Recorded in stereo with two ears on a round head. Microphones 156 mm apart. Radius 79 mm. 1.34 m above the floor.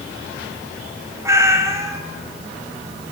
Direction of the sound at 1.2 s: 20° right (ahead or behind).